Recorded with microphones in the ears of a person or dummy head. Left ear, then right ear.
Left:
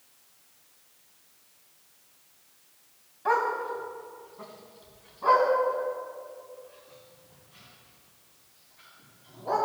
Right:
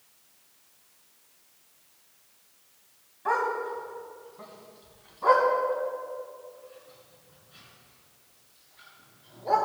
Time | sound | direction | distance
3.2 | a dog barking | 10° left (ahead or behind) | 2 m